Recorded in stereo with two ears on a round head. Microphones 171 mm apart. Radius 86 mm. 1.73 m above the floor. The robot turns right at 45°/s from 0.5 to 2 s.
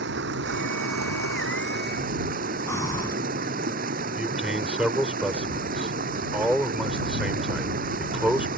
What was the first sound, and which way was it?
Running water, 115° right.